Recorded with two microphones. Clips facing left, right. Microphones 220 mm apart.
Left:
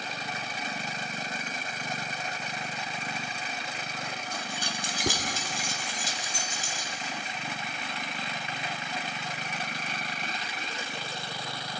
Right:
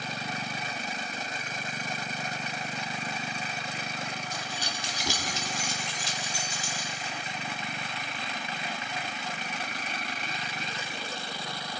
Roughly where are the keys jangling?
Left.